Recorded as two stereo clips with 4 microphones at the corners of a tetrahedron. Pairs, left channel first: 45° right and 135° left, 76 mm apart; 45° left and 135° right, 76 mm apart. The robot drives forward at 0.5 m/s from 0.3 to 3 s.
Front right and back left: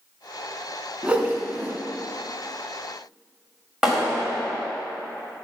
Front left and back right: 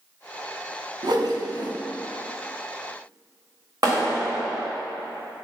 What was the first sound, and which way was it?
A whoosh, 150° right.